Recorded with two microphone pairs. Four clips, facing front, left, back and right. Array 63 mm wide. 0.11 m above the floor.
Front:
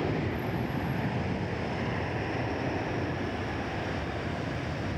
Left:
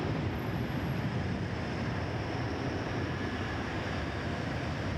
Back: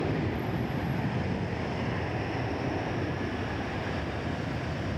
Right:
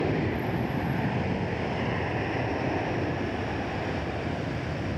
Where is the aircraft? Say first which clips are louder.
Right 7 dB, even; 85° right.